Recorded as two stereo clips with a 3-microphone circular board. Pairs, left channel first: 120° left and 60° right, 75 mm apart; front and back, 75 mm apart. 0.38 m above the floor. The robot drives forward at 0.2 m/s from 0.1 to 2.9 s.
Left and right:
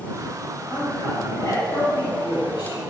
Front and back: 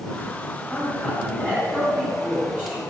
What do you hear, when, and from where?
0.7 s a man speaking: 110° left, 3.5 m; by 2.9 s 120° left, 3.5 m